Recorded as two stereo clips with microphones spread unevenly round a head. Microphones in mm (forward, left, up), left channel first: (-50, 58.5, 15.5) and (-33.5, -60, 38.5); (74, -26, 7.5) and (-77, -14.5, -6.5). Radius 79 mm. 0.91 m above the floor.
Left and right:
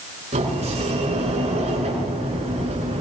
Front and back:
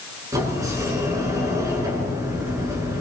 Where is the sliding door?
115° right, 8.5 m.